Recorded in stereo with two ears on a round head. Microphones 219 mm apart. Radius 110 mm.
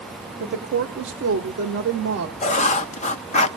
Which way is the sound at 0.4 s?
45° right (ahead or behind).